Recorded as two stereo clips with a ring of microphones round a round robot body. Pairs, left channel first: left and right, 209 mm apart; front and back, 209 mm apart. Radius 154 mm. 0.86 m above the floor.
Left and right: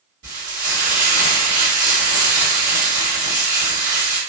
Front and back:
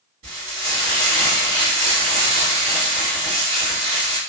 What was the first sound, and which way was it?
Frying, 135° right.